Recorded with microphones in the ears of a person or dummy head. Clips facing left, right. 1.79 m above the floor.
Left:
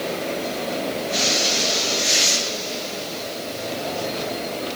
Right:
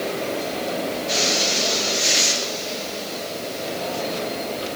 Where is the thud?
No thud in this recording.